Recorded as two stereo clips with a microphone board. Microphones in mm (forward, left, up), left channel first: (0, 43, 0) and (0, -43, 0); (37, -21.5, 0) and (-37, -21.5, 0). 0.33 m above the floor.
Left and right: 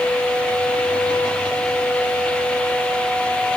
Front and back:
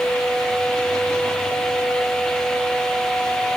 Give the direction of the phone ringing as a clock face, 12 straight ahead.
No phone ringing in this recording.